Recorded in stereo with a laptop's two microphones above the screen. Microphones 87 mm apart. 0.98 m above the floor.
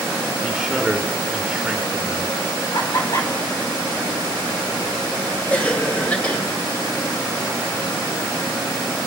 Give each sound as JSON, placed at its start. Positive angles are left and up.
{"t": 0.4, "sound": "a man speaking", "side_deg": -5, "distance_m": 2.5}
{"t": 2.7, "sound": "laughter", "side_deg": 50, "distance_m": 2.5}
{"t": 5.5, "sound": "a cough", "side_deg": 20, "distance_m": 1.4}